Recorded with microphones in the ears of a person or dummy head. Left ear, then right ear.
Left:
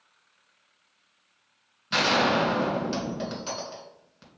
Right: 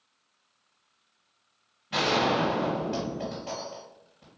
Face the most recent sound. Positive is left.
turn(degrees=65)  # may be behind; listen again after turning